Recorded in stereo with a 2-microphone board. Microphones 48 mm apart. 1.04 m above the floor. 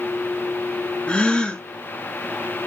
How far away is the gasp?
About 0.5 m.